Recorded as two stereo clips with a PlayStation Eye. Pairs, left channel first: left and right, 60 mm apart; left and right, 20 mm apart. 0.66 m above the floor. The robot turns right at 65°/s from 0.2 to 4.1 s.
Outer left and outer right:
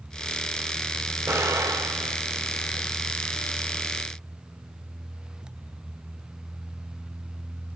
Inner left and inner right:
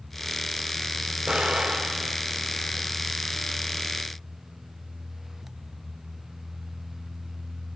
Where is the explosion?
65° right (ahead or behind), 3.5 m; by 2.9 s 5° right (ahead or behind), 3.5 m.